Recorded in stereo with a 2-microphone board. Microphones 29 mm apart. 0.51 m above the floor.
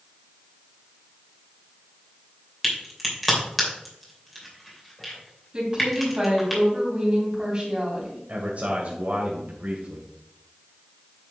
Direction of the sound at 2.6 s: 5° left (ahead or behind).